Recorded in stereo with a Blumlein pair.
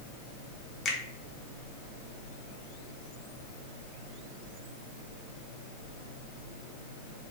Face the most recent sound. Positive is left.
turn(degrees=25)